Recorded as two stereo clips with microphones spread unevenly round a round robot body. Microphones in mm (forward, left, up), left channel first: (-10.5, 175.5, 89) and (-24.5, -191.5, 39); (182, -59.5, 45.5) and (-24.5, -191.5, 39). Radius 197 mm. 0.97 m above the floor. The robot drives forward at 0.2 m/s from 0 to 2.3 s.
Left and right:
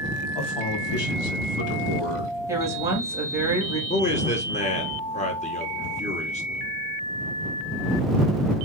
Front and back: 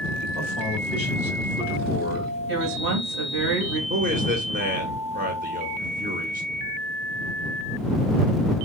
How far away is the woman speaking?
About 1.2 m.